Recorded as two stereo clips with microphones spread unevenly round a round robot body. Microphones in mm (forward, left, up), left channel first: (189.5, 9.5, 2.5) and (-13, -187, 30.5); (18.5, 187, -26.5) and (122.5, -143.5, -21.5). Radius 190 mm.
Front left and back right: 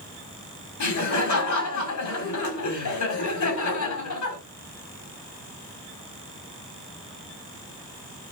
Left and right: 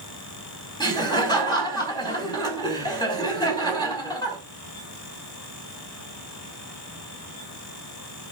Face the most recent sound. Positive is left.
turn(degrees=30)